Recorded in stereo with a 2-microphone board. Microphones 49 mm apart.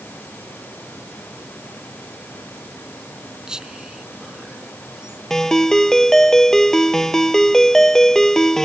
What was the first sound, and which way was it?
Whispering, 15° right (ahead or behind).